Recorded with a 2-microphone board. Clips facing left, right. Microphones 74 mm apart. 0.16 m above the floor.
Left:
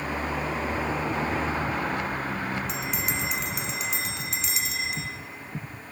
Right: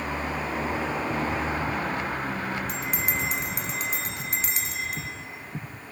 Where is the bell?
40° right (ahead or behind), 1.3 m.